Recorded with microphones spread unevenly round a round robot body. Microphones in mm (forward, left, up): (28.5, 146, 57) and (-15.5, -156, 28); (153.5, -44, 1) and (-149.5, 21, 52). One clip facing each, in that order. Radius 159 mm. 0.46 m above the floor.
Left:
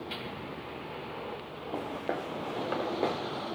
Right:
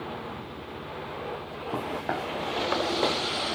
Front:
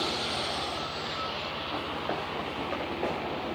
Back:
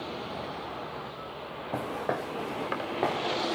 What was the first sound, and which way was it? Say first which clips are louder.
Footsteps: right 2 dB, back 3 dB; 165° right.